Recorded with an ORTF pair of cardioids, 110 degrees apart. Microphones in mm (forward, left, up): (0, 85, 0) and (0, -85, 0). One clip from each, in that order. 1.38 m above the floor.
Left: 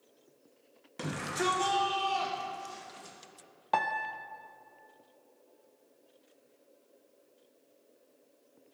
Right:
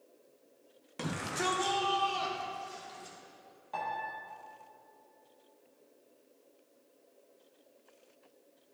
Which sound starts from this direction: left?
A piano, at 3.7 s.